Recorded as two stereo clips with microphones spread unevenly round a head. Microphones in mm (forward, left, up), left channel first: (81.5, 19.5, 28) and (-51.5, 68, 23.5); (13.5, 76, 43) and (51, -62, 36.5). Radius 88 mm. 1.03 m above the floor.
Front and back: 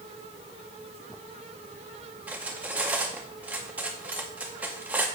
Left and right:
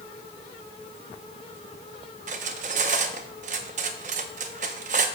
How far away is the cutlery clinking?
About 0.5 m.